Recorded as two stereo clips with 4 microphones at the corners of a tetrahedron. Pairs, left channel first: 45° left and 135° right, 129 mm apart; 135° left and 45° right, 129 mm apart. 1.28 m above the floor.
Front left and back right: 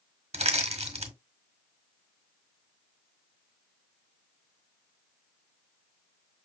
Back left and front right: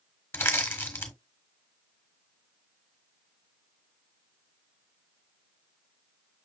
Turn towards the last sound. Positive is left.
turn(degrees=-155)